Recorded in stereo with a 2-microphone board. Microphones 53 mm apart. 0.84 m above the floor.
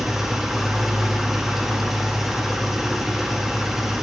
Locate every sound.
0.0 s an engine running: 5° right (ahead or behind), 1.0 m